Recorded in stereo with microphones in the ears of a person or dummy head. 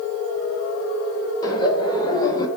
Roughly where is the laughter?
Left.